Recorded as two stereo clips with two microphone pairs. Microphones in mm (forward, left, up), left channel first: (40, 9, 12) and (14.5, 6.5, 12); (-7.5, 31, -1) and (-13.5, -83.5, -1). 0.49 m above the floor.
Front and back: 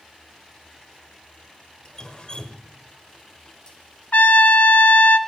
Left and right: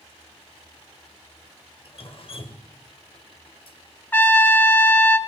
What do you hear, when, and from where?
1.9 s dripping: 55° left, 1.2 m
4.1 s a trumpet: 15° left, 0.9 m